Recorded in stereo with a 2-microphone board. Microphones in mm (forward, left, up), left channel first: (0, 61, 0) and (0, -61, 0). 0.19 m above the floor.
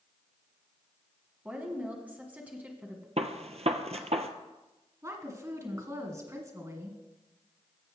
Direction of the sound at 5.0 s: 30° right (ahead or behind).